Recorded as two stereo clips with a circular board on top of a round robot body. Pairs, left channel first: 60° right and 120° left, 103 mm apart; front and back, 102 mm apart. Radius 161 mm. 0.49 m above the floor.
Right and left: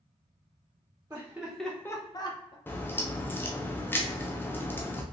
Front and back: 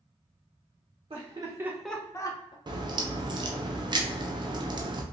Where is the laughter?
175° right, 1.2 m; by 2.6 s 30° right, 1.3 m.